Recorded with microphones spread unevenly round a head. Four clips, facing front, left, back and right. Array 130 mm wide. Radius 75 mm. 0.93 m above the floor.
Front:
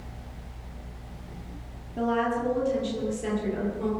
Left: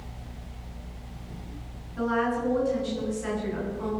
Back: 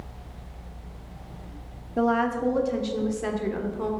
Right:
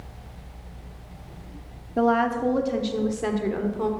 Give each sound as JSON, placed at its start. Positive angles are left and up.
{"t": 2.0, "sound": "a woman speaking", "azimuth_deg": -115, "distance_m": 2.0}